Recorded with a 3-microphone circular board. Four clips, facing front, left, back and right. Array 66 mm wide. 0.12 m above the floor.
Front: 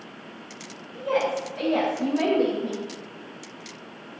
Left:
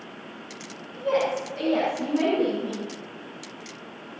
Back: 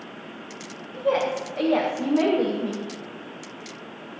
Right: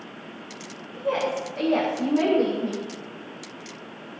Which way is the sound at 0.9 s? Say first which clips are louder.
Left 1 dB, back 1 dB; 175° right.